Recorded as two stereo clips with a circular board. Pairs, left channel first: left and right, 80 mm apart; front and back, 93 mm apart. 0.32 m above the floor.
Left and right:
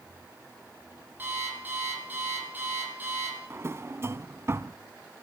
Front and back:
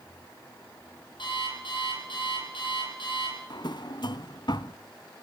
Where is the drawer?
35° right, 0.6 m.